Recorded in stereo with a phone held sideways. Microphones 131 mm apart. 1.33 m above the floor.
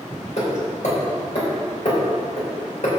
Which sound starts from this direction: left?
Hammering, at 0.4 s.